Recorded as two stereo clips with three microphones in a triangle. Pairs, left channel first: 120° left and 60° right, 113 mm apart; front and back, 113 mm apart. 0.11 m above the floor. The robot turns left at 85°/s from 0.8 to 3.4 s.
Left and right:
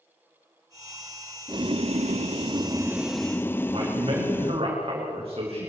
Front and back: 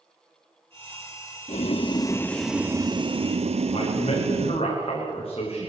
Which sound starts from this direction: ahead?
Boiling, at 1.5 s.